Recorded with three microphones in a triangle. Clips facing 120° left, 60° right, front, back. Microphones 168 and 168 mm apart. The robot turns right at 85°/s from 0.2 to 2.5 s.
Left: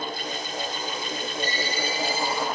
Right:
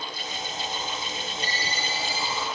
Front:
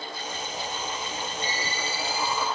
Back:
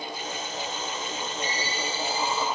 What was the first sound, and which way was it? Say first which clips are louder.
A ringtone: left 5 dB, back 2 dB; 60° right.